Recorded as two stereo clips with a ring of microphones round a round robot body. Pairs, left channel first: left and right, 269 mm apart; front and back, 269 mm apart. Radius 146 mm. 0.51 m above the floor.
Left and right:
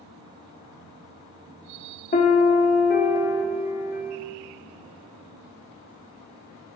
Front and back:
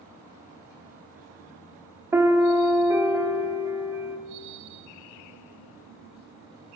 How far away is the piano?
About 0.7 m.